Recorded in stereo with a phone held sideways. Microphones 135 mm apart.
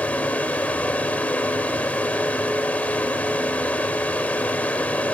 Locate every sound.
0.0 s a fan: 10° left (ahead or behind), 0.8 m